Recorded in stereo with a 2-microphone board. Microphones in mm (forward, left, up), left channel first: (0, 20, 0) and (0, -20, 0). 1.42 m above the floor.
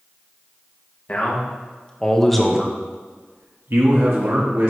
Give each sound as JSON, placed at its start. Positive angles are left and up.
{"t": 1.1, "sound": "a man speaking", "side_deg": 35, "distance_m": 1.8}